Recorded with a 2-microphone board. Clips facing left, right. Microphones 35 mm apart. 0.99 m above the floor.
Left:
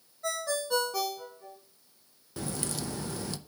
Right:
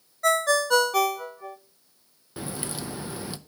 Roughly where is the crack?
Right.